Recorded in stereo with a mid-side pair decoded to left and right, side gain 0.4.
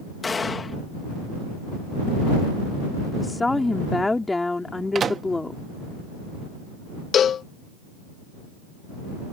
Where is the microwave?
50° right.